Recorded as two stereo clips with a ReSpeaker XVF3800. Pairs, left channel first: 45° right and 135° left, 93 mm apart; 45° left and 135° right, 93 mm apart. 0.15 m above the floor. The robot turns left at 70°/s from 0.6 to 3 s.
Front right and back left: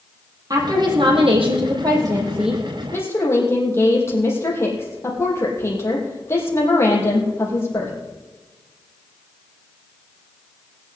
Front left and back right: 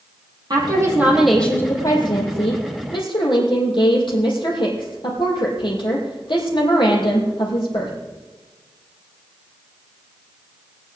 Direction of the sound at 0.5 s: 175° right.